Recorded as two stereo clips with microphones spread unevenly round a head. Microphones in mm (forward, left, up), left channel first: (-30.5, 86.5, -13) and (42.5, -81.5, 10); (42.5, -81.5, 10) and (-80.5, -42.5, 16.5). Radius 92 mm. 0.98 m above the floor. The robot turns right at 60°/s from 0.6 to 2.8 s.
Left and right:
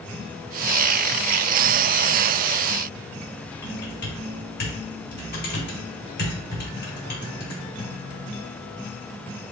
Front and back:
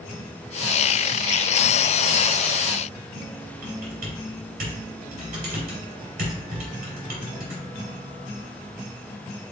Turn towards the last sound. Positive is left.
turn(degrees=155)